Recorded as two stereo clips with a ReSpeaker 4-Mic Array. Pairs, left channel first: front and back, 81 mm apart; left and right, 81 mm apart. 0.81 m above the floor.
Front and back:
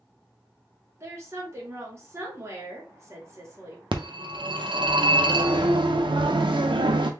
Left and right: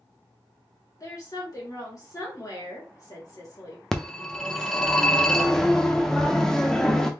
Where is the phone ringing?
175° left, 0.6 m.